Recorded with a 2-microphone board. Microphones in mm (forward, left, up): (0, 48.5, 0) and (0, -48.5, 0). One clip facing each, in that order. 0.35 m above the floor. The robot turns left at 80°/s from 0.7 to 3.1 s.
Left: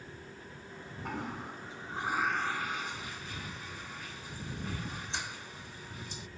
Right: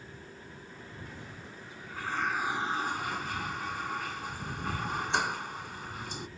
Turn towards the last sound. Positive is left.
turn(degrees=-65)